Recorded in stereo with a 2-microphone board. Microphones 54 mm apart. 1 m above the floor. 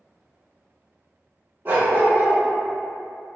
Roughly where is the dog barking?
Right.